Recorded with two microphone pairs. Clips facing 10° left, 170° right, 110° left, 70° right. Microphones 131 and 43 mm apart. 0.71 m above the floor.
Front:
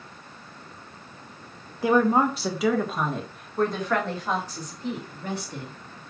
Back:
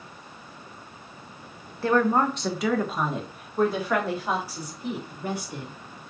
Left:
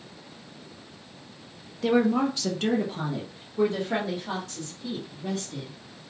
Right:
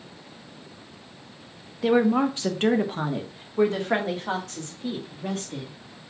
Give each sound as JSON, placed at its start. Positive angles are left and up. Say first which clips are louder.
{"t": 1.8, "sound": "a woman speaking", "louder": "front 1 dB, right 2 dB", "azimuth_deg": -30, "distance_m": 0.6}